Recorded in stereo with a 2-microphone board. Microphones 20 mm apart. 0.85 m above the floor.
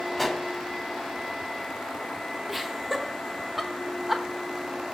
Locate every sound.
0.2 s a pop: 10° left (ahead or behind), 1.5 m
2.5 s laughter: 5° right (ahead or behind), 1.1 m